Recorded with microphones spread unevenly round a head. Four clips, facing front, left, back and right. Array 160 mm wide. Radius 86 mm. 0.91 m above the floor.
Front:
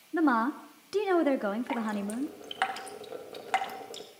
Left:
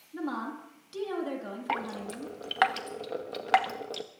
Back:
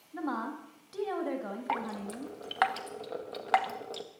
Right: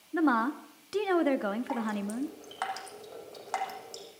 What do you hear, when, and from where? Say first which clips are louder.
0.1 s a woman speaking: right 8 dB, front 9 dB; 25° right, 1.4 m
1.7 s dripping: right 1 dB, front 2 dB; 95° left, 1.5 m